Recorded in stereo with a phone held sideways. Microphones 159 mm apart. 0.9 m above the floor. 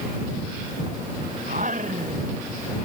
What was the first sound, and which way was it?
Singing, 55° right (ahead or behind).